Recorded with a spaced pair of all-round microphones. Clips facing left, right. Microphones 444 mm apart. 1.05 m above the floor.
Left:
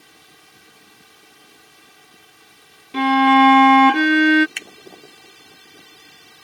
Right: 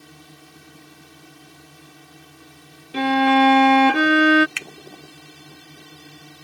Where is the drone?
65° right (ahead or behind).